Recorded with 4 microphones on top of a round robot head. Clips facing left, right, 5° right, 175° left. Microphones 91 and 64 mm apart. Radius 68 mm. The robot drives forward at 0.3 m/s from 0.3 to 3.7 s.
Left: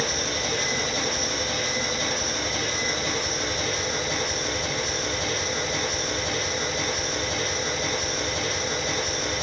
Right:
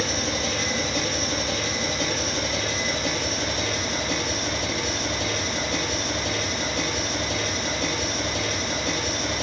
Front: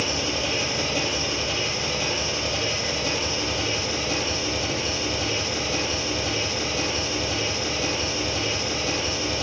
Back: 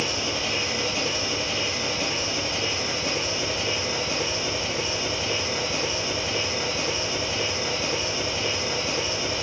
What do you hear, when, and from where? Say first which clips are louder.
0.0 s an engine running: right 2 dB, front 1 dB; 100° right, 3.5 m; by 9.4 s 115° right, 4 m